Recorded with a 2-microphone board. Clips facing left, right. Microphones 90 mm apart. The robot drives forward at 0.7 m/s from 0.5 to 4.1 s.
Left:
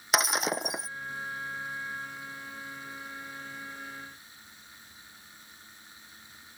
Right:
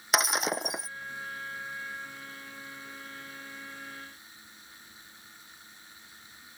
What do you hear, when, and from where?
0.1 s breaking glass: centre (ahead or behind)